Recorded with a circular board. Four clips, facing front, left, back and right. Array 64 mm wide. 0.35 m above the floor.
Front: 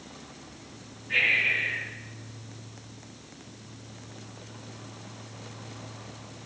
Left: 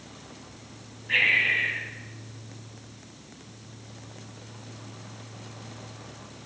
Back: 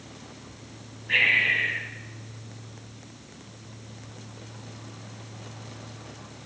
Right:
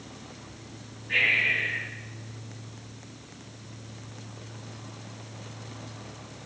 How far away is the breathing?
About 2.5 m.